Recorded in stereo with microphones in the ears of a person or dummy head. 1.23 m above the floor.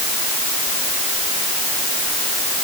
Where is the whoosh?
No whoosh in this recording.